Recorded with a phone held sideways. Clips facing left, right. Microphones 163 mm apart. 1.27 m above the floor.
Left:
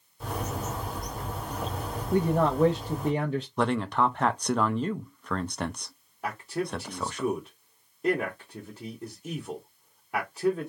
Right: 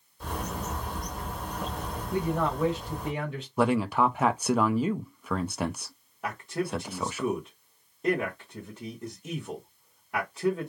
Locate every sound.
0.2 s a bird: centre (ahead or behind), 1.8 m
2.1 s a man speaking: 40° left (ahead or behind), 0.5 m
3.6 s a man speaking: 5° right (ahead or behind), 0.5 m
6.2 s a man speaking: 5° left (ahead or behind), 1.0 m